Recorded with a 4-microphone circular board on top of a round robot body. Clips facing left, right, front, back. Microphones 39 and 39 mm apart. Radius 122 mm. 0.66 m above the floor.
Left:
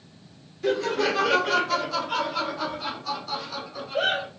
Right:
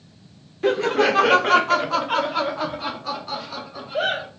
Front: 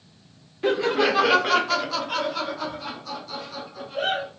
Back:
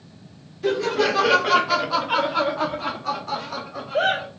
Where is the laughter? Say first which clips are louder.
Right 5 dB, even; 60° right, 1.0 m; by 4.3 s 165° right, 1.7 m.